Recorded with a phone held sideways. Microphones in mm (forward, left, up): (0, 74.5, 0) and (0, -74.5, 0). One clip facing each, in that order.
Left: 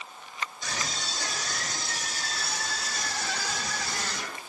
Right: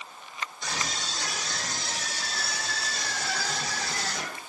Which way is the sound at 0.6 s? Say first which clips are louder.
Right 3 dB; 85° right.